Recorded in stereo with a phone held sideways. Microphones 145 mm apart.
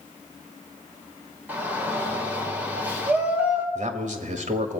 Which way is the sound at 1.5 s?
10° right (ahead or behind).